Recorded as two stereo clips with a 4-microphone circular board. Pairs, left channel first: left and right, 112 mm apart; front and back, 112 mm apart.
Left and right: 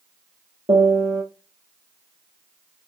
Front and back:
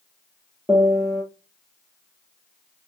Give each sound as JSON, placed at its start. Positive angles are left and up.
{"t": 0.7, "sound": "a piano", "azimuth_deg": -95, "distance_m": 1.6}